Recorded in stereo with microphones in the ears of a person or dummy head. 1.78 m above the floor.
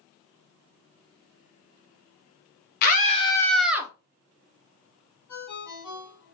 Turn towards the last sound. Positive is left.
turn(degrees=5)  # may be behind; listen again after turning